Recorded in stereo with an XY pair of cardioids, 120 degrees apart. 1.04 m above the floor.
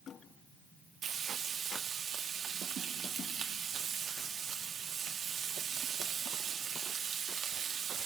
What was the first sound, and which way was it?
Frying, 50° right.